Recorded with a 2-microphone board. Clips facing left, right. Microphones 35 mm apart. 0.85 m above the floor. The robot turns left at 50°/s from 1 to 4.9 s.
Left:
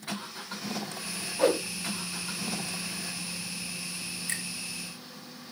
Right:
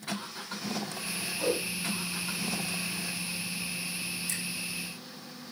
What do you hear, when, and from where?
1.4 s a whoosh: 60° left (ahead or behind), 0.9 m; by 1.6 s 70° left (ahead or behind), 0.9 m
4.3 s a finger snap: 50° left (ahead or behind), 2 m; by 4.4 s 55° left (ahead or behind), 2 m